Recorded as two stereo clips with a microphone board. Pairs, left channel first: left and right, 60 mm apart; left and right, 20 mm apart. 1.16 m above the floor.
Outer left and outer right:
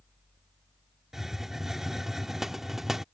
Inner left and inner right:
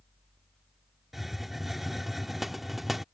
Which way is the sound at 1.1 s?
5° right (ahead or behind).